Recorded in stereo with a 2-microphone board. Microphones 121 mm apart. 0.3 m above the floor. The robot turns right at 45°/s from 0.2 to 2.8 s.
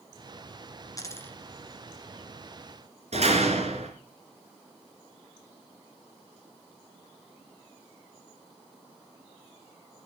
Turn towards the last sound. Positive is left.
turn(degrees=-60)  # may be behind; listen again after turning